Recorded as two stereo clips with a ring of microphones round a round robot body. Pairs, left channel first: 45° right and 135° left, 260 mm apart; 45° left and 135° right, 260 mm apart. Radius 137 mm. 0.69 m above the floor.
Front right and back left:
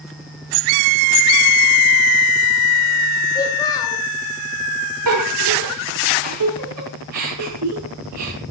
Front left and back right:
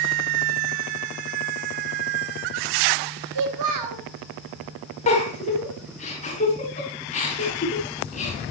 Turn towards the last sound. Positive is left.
turn(degrees=110)